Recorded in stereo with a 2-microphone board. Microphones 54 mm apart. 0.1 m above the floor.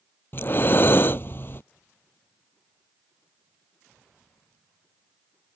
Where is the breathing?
45° left (ahead or behind).